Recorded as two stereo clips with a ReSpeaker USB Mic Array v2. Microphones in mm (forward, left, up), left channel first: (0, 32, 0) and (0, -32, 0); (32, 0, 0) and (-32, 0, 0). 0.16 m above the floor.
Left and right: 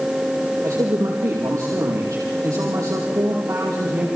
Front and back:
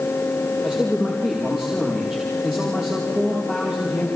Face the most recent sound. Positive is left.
turn(degrees=-95)